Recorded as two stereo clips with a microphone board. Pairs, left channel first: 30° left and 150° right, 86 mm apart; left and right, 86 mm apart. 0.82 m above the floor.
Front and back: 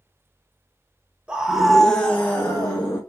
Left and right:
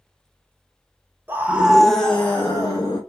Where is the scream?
90° right, 0.7 m; by 3.0 s 70° left, 0.9 m.